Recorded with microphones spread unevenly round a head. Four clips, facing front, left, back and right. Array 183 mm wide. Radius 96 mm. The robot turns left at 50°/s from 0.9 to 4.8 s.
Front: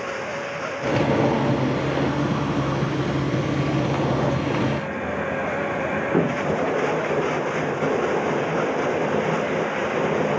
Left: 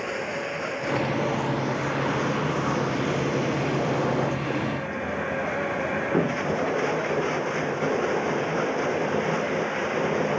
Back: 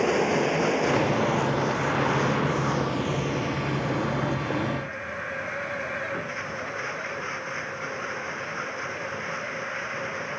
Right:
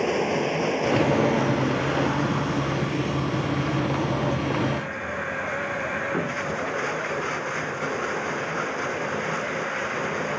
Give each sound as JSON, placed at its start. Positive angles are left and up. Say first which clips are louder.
{"t": 0.0, "sound": "running water", "louder": "right 6 dB, back 6 dB", "azimuth_deg": -140}